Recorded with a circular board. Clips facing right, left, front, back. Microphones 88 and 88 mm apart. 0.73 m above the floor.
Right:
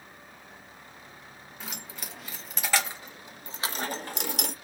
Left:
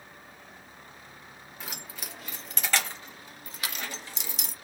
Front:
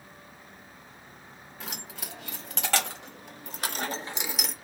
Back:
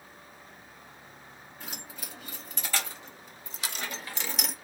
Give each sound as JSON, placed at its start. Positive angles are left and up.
{"t": 1.6, "sound": "keys jangling", "azimuth_deg": 5, "distance_m": 1.6}